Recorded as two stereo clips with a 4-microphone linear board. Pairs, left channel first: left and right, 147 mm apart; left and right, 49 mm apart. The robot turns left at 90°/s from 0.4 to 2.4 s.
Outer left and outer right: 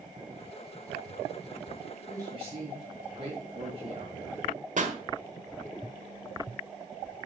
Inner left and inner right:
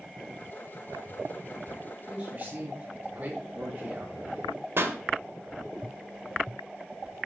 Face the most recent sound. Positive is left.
turn(degrees=-55)  # may be behind; listen again after turning